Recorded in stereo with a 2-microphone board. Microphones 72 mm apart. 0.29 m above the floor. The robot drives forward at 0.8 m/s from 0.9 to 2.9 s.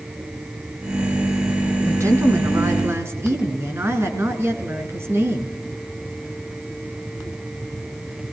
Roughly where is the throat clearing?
No throat clearing in this recording.